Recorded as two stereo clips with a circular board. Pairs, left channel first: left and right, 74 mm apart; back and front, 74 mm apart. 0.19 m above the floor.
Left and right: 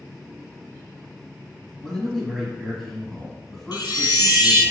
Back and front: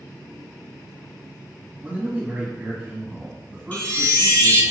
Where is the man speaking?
15° left, 1.4 m.